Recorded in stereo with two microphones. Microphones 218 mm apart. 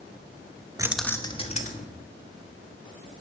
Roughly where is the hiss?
I don't hear a hiss.